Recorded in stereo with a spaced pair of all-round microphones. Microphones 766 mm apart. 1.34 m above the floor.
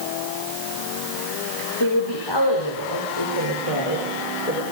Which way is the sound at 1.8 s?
30° left (ahead or behind).